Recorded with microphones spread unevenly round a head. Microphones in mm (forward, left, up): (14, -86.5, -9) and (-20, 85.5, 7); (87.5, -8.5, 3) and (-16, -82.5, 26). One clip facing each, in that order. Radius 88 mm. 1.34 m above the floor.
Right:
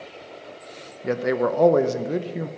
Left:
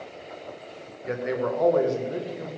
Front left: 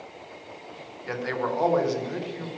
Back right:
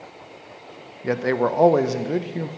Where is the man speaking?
105° right, 1.0 m.